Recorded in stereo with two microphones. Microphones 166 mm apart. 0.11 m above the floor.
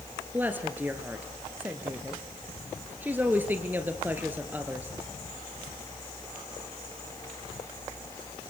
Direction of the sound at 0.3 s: 10° right (ahead or behind).